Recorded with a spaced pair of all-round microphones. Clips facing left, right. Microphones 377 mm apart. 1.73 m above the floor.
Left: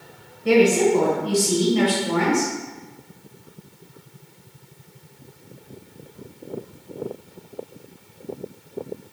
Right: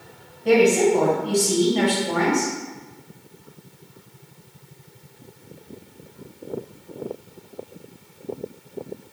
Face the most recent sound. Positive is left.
turn(degrees=15)  # may be behind; listen again after turning